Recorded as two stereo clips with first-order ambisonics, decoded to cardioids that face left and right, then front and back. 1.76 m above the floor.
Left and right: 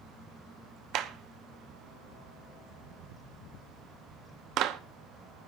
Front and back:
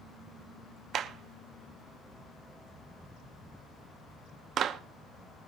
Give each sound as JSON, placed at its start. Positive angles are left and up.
{"t": 0.9, "sound": "a clap", "azimuth_deg": -125, "distance_m": 0.9}